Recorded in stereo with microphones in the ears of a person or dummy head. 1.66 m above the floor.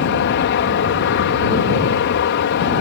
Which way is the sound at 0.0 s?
55° left (ahead or behind).